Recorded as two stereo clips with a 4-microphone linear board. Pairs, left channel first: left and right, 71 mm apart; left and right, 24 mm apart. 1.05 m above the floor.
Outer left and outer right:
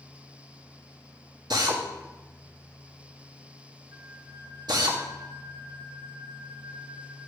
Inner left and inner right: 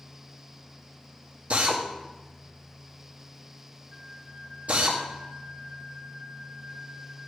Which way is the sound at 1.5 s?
75° right (ahead or behind).